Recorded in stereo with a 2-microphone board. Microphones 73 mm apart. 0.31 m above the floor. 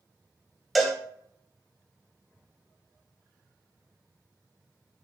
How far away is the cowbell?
About 0.8 m.